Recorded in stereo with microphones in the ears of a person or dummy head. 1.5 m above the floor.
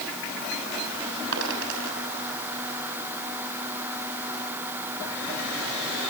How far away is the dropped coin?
About 6.5 m.